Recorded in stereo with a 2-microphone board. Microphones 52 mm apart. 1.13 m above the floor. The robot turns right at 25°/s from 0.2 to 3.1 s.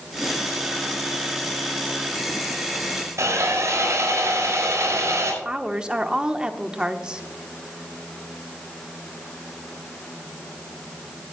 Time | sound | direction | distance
3.2 | sawing | 70° right (ahead or behind) | 5 m
5.4 | a woman speaking | 20° right (ahead or behind) | 1.0 m